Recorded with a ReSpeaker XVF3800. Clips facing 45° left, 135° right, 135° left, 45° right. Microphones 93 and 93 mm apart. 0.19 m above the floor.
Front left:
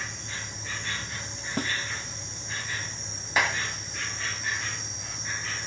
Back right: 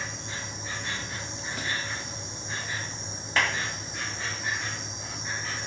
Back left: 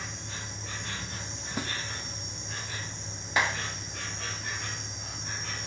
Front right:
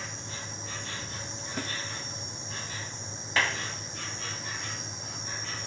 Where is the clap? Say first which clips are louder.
Front left 1 dB, back left 1 dB; 100° left, 1.2 m.